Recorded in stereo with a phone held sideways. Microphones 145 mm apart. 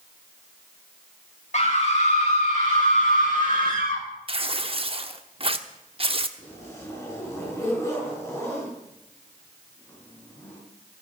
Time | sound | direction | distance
1.5 | a scream | 55° left (ahead or behind) | 7 m
4.3 | tearing paper | 40° right (ahead or behind) | 1.0 m
6.4 | a zipper | 20° left (ahead or behind) | 6.5 m